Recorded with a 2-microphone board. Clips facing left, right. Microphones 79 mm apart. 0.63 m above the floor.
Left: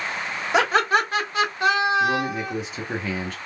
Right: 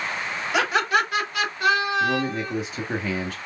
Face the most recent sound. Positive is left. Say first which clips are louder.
# left 1 dB
turn(degrees=0)  # may be behind; listen again after turning